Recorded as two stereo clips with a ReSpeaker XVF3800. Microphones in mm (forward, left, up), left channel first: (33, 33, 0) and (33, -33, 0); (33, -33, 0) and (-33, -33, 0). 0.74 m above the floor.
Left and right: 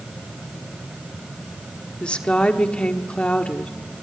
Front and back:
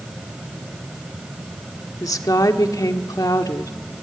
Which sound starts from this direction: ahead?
A woman speaking, at 2.0 s.